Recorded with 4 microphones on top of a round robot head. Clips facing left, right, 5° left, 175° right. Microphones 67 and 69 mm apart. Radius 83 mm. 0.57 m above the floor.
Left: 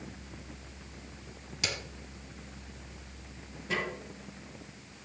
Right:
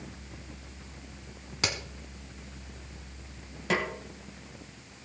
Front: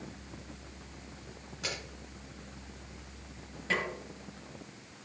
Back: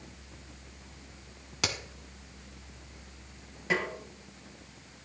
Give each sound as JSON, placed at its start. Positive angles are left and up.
{"t": 1.6, "sound": "a crack", "azimuth_deg": -145, "distance_m": 1.4}
{"t": 3.7, "sound": "a snare drum", "azimuth_deg": -95, "distance_m": 3.0}